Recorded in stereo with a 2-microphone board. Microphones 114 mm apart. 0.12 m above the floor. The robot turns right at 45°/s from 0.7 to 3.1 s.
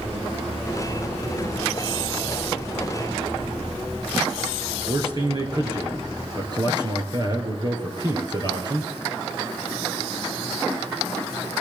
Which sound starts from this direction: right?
A man speaking, at 4.9 s.